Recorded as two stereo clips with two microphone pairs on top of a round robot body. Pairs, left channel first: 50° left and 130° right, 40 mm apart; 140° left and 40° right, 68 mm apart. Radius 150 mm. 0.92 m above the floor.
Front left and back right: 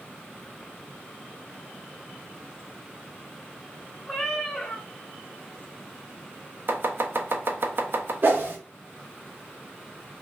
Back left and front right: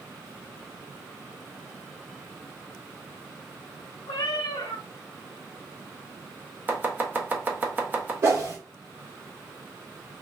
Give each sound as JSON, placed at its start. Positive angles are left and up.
{"t": 4.1, "sound": "a cat meowing", "azimuth_deg": 120, "distance_m": 0.5}
{"t": 6.7, "sound": "chopping", "azimuth_deg": -105, "distance_m": 1.1}
{"t": 8.2, "sound": "a whoosh", "azimuth_deg": -90, "distance_m": 1.3}